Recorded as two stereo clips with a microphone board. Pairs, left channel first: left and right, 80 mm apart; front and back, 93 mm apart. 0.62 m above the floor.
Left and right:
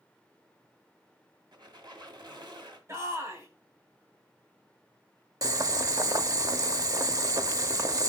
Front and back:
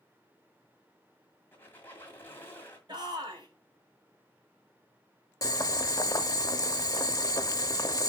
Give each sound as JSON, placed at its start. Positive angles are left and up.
{"t": 1.5, "sound": "a squeak", "azimuth_deg": -65, "distance_m": 1.9}
{"t": 2.9, "sound": "a shout", "azimuth_deg": -145, "distance_m": 3.0}
{"t": 5.4, "sound": "boiling", "azimuth_deg": -50, "distance_m": 0.6}